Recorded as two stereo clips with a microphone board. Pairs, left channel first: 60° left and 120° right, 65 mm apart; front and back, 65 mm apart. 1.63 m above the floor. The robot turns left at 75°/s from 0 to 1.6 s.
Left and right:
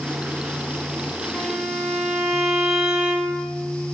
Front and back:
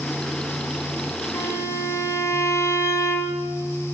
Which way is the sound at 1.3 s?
20° right.